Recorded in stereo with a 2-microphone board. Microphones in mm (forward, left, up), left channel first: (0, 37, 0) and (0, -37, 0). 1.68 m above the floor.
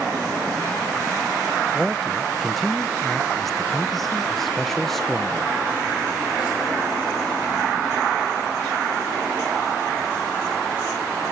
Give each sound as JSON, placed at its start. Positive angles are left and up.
{"t": 1.7, "sound": "a man speaking", "side_deg": 5}